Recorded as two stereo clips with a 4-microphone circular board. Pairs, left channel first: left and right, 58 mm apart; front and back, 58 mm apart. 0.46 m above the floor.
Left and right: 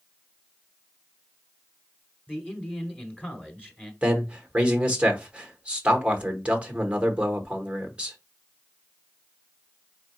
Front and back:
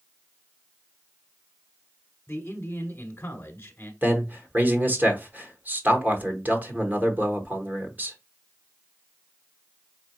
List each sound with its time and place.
2.3 s a man speaking: 35° left, 1.2 m
4.0 s a man speaking: 140° right, 1.0 m